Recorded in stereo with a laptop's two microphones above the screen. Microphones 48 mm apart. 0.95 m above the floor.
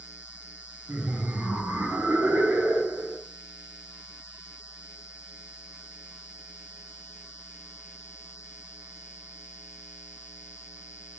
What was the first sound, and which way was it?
Laughter, 30° right (ahead or behind).